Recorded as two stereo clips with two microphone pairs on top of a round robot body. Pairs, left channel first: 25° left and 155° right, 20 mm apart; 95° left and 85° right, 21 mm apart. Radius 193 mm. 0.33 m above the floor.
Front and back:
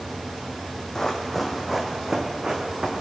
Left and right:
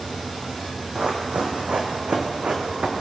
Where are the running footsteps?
45° right, 1.0 m; by 2.9 s 105° right, 1.9 m.